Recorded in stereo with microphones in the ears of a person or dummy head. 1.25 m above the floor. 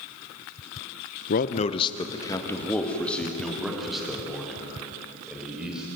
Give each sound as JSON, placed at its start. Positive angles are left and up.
{"t": 1.3, "sound": "a man speaking", "side_deg": 55, "distance_m": 0.9}